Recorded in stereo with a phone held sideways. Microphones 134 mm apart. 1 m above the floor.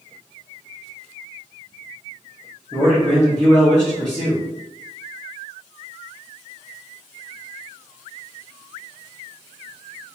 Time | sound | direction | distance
2.7 | a man speaking | 10° left (ahead or behind) | 1.2 m